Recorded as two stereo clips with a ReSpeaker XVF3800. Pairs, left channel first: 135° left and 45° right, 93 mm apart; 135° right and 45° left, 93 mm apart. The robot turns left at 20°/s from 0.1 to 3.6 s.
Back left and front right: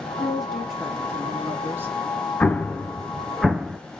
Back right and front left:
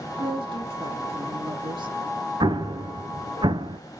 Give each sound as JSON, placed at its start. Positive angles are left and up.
{"t": 0.2, "sound": "a woman speaking", "azimuth_deg": 50, "distance_m": 3.0}
{"t": 2.4, "sound": "an explosion", "azimuth_deg": 65, "distance_m": 0.7}